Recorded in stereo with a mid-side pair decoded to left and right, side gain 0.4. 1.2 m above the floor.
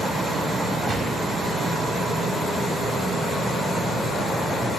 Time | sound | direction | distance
0.9 | a gunshot | 55° right | 2.5 m